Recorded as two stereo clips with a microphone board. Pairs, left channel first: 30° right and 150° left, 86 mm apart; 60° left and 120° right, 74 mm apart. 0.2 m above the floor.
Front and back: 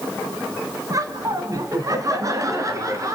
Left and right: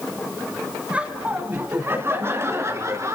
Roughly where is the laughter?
Behind.